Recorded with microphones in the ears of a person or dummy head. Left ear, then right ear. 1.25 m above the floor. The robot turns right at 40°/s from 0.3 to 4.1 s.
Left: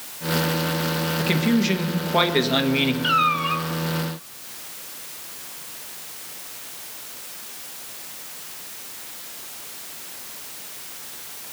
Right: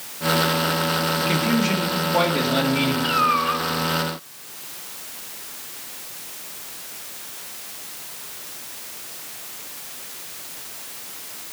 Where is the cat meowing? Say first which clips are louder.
Right 1 dB; 25° left (ahead or behind), 1.3 m; by 3.6 s 45° left (ahead or behind), 1.3 m.